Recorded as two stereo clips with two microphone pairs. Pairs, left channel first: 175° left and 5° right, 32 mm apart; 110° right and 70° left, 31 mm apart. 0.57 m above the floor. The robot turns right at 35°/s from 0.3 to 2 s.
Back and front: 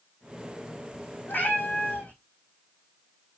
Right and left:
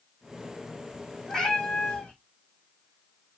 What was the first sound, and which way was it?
A cat meowing, 170° left.